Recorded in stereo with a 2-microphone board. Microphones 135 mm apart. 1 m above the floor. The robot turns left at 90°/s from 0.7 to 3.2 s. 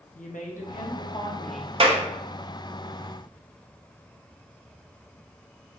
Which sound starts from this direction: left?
A woman speaking, at 0.1 s.